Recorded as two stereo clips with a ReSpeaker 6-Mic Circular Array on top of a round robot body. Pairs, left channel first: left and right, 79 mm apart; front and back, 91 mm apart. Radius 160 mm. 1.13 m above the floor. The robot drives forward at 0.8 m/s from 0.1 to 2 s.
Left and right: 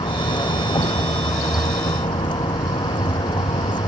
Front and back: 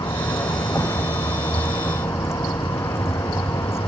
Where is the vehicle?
60° left; by 3.9 s 65° left.